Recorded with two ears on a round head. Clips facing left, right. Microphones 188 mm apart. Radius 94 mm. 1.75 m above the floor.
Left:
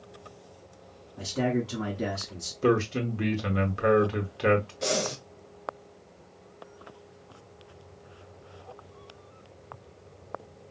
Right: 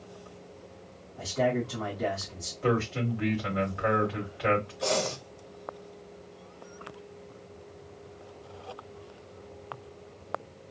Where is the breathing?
20° left (ahead or behind), 0.6 m.